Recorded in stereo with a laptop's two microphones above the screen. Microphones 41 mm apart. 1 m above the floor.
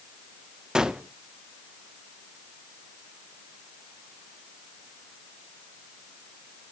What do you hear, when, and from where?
0.8 s a gunshot: 15° right (ahead or behind), 0.8 m